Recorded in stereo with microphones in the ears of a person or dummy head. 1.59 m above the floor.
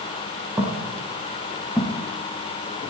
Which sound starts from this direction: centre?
Footsteps, at 0.6 s.